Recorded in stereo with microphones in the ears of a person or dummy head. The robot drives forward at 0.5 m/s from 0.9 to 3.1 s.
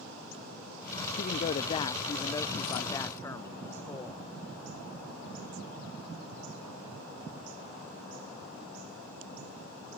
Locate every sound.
1.2 s a woman speaking: 40° left (ahead or behind); by 4.2 s 15° left (ahead or behind)